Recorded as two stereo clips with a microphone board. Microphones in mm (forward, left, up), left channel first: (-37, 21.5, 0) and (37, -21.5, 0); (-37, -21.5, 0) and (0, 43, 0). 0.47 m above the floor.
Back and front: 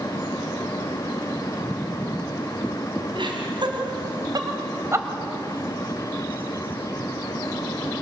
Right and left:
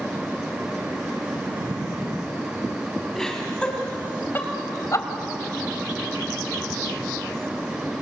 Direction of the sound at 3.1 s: 35° right.